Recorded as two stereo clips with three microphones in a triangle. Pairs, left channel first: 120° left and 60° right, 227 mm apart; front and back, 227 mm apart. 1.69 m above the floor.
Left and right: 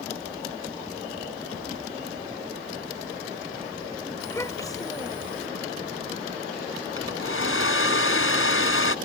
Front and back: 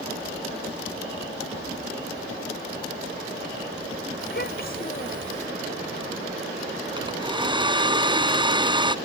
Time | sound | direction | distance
4.2 | a child speaking | 40° left | ?
7.0 | a hair dryer | 110° left | ?